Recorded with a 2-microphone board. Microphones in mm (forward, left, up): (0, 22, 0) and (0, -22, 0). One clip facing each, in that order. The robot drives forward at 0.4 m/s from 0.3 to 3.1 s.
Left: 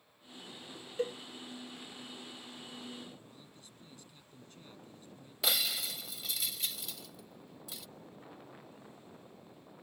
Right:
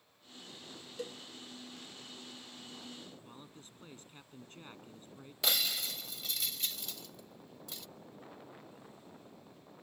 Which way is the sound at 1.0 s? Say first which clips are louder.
Left 8 dB; 30° left (ahead or behind).